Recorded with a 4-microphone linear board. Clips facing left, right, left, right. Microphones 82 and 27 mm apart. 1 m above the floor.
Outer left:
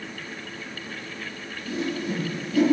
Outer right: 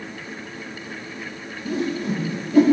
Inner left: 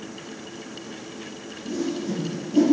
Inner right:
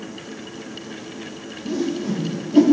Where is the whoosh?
50° right (ahead or behind), 2.5 m.